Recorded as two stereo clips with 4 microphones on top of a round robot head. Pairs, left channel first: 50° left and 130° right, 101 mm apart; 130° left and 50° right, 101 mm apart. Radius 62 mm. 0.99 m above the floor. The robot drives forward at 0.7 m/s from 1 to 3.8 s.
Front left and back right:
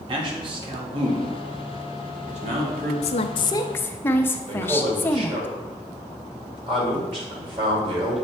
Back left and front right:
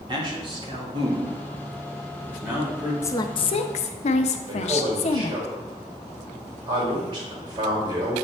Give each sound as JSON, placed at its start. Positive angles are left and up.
{"t": 0.1, "sound": "a man speaking", "azimuth_deg": -95, "distance_m": 1.5}
{"t": 3.0, "sound": "a woman speaking", "azimuth_deg": 65, "distance_m": 0.6}
{"t": 4.5, "sound": "a man speaking", "azimuth_deg": -95, "distance_m": 2.5}